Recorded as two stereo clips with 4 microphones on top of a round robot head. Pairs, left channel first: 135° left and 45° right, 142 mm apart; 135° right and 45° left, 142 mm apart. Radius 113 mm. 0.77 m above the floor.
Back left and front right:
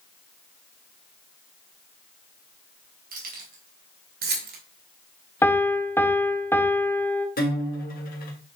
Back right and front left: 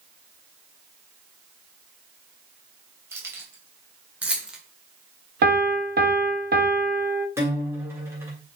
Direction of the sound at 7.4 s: 120° left.